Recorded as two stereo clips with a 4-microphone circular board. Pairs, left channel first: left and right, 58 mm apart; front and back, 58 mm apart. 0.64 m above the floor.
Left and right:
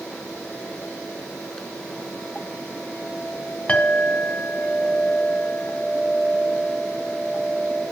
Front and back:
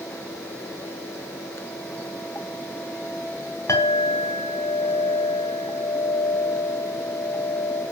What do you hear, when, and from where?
3.7 s a clink: 15° left, 2.5 m